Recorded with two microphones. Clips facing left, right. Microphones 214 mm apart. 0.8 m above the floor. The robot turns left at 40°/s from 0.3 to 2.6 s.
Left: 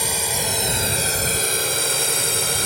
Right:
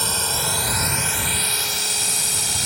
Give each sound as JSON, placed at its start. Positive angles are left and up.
{"t": 0.0, "sound": "a drone", "side_deg": 10}